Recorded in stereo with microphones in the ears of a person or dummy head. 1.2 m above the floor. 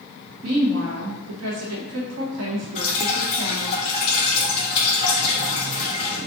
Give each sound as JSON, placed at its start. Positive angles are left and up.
{"t": 0.4, "sound": "a woman speaking", "side_deg": -80, "distance_m": 1.2}
{"t": 2.8, "sound": "dripping", "side_deg": 35, "distance_m": 1.7}